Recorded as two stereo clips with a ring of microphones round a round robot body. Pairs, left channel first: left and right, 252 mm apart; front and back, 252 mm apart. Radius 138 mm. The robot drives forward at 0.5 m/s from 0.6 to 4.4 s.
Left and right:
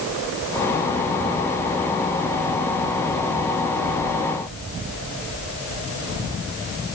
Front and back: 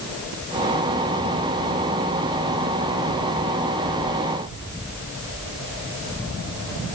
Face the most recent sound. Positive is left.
No sound to turn to.